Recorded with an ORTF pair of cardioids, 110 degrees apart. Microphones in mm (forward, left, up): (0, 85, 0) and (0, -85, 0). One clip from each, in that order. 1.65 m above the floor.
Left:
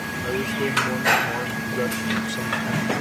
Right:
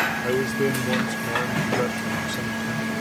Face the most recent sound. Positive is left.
turn(degrees=10)